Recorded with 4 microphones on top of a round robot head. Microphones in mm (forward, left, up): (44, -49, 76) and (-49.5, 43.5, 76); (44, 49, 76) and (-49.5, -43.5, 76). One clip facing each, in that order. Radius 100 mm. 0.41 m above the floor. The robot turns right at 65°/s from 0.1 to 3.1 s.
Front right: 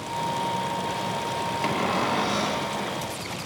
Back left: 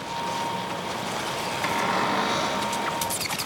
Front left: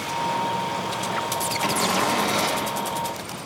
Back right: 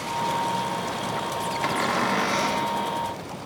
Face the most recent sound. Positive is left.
turn(degrees=80)